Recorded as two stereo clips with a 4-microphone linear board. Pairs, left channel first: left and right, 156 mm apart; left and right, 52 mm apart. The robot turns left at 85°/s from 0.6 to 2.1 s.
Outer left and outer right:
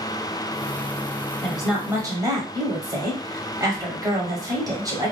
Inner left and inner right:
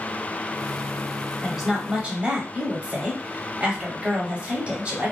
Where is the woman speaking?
10° left, 1.0 m; by 5.1 s 45° right, 1.0 m.